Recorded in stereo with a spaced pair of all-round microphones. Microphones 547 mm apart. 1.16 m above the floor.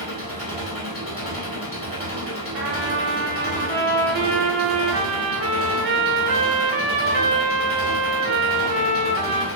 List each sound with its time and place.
0.0 s an engine running: 25° left (ahead or behind), 1.0 m
2.5 s a trumpet: 80° right, 0.6 m